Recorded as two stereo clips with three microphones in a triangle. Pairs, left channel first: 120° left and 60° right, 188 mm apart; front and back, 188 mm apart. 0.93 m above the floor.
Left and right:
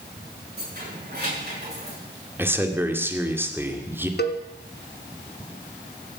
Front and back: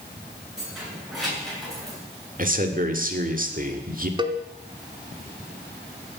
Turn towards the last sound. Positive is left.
turn(degrees=120)